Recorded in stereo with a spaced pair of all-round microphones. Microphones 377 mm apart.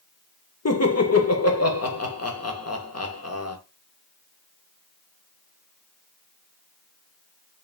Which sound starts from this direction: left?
Laughter, at 0.7 s.